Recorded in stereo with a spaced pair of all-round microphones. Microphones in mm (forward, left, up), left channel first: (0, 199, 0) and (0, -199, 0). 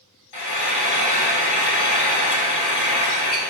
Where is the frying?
75° left (ahead or behind), 0.8 m.